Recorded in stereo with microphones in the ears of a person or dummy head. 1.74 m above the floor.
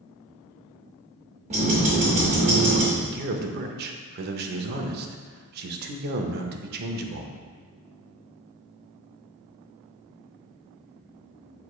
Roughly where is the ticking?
Right.